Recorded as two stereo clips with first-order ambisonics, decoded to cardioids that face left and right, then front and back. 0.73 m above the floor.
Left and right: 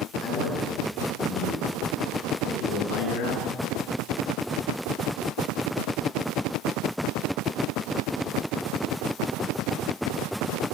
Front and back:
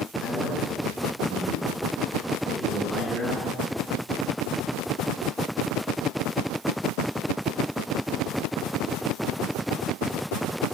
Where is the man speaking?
80° left, 10 m.